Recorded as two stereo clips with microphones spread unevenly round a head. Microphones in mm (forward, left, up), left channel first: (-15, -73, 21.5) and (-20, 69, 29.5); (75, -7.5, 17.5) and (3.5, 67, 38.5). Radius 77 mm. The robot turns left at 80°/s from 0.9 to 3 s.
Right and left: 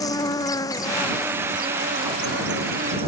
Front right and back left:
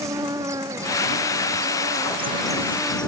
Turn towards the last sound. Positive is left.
turn(degrees=35)